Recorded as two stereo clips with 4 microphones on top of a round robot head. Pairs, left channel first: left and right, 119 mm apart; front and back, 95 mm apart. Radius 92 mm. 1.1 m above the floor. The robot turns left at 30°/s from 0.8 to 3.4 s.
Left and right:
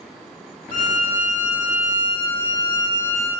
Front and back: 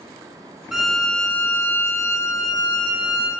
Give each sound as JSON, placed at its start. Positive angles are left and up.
{"t": 0.7, "sound": "a violin", "azimuth_deg": 95, "distance_m": 1.6}